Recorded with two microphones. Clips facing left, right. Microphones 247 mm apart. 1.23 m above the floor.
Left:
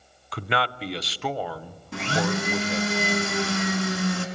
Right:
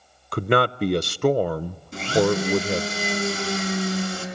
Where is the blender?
65° left (ahead or behind), 4.5 m.